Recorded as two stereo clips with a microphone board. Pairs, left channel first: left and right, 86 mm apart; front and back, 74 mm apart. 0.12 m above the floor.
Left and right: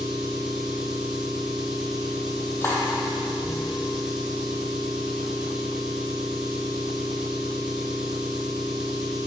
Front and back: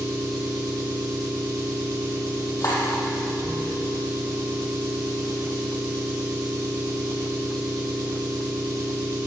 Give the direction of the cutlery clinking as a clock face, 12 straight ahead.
11 o'clock.